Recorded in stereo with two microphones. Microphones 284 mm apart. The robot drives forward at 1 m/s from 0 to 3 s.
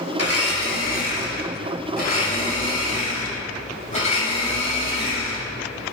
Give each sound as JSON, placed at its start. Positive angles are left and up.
{"t": 0.2, "sound": "a blender", "side_deg": 55, "distance_m": 2.0}